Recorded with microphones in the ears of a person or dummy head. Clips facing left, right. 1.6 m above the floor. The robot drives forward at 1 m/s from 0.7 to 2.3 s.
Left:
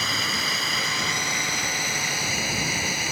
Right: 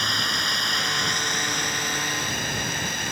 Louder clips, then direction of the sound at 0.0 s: Even; 10° left (ahead or behind).